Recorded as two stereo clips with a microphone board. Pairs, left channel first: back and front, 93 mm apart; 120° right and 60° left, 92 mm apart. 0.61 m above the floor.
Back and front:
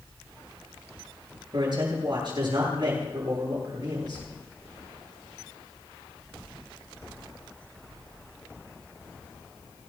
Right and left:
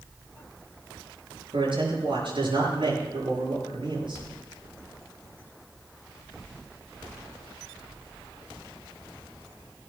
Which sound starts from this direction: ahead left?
A man speaking, at 1.5 s.